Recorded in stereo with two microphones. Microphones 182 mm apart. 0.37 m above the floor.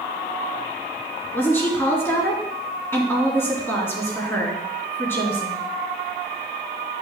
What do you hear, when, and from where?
1.3 s a woman speaking: 10° left (ahead or behind), 3.5 m